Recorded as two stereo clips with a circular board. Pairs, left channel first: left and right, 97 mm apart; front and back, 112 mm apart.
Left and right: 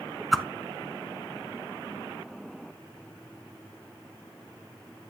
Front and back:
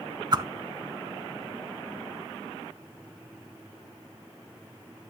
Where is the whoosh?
Straight behind, 0.7 m.